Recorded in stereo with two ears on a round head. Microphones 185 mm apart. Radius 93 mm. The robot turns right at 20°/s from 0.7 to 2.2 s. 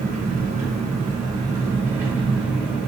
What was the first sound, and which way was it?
An engine running, 40° right.